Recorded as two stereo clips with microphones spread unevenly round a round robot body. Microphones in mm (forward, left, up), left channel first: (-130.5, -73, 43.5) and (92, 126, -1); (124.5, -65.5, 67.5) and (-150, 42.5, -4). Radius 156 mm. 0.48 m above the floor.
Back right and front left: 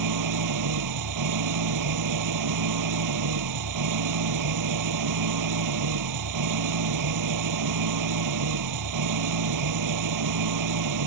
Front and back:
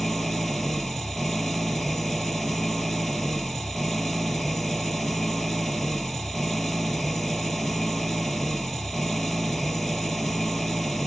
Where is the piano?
I don't hear a piano.